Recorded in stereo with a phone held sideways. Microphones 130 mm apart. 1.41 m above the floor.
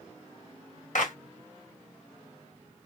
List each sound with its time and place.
0.9 s a clap: 75° left (ahead or behind), 0.9 m